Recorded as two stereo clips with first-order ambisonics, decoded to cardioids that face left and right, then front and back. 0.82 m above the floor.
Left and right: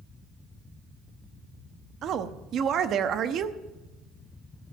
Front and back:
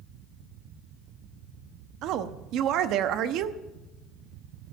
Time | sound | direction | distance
2.0 | a woman speaking | 145° right | 0.9 m